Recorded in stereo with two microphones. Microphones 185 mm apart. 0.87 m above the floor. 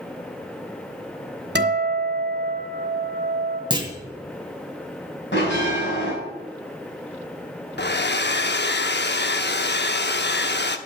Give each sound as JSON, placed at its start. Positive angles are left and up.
{"t": 1.6, "sound": "a guitar", "side_deg": -65, "distance_m": 1.5}
{"t": 3.7, "sound": "a clunk", "side_deg": -25, "distance_m": 1.9}
{"t": 5.3, "sound": "a bell", "side_deg": 85, "distance_m": 5.5}
{"t": 7.8, "sound": "a hair dryer", "side_deg": 70, "distance_m": 0.7}